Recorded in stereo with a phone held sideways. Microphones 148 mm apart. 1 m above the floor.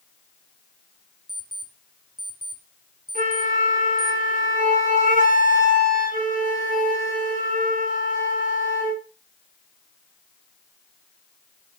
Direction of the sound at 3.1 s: 65° right (ahead or behind).